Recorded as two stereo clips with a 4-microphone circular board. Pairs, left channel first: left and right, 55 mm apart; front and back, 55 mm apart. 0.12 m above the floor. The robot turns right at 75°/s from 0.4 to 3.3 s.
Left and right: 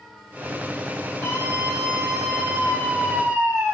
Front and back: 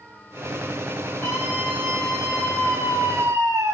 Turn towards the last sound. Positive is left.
turn(degrees=-145)